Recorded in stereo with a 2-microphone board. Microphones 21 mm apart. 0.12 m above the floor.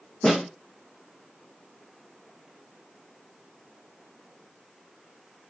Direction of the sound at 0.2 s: 40° left (ahead or behind).